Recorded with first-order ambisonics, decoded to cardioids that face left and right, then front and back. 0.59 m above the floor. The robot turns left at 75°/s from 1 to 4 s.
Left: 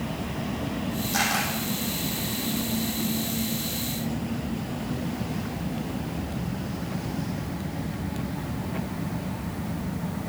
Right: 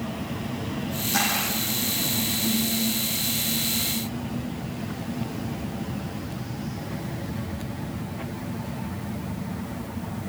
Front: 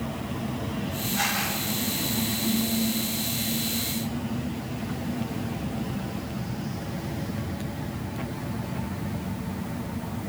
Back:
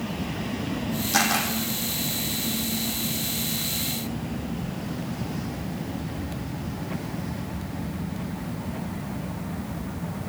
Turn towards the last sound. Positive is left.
turn(degrees=-30)